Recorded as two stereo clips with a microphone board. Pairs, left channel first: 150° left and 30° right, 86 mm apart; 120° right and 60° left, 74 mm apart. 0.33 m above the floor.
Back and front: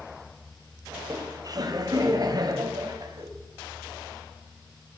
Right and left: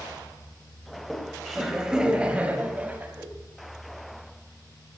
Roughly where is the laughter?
Ahead right.